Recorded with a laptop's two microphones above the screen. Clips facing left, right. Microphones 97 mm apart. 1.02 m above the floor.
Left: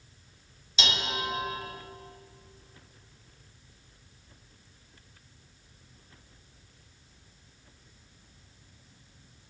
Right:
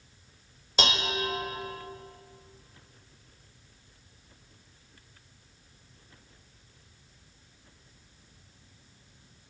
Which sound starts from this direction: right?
Dishes clattering, at 0.8 s.